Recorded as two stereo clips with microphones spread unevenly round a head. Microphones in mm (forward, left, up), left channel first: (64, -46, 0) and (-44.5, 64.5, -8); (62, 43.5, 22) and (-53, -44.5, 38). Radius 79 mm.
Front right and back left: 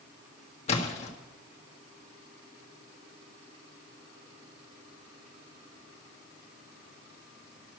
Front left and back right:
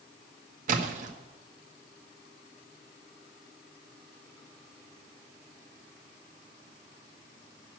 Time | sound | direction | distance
0.7 | a splash | 100° right | 1.6 m